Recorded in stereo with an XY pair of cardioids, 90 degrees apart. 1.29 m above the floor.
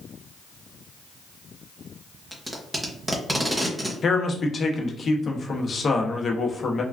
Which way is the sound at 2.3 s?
15° right.